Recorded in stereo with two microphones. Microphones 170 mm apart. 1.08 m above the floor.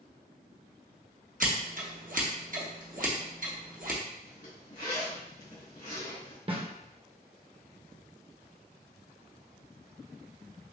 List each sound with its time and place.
1.4 s scissors: 55° right (ahead or behind), 0.8 m
4.2 s a zipper: 65° left (ahead or behind), 1.8 m
6.5 s a snare drum: 30° right (ahead or behind), 0.8 m